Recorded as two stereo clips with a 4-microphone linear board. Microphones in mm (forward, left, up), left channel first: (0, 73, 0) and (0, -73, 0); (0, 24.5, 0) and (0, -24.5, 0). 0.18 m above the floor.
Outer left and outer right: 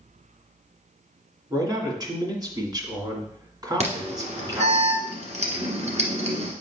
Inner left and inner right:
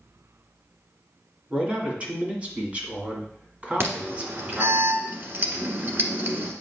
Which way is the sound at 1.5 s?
25° right (ahead or behind).